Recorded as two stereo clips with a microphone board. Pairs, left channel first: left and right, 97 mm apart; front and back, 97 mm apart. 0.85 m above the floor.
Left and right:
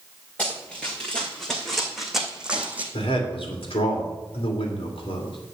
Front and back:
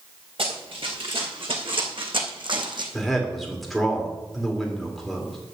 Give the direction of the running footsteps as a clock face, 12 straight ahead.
6 o'clock.